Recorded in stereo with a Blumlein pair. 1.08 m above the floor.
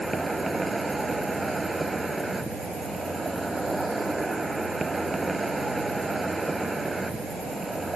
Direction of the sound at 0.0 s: 5° right.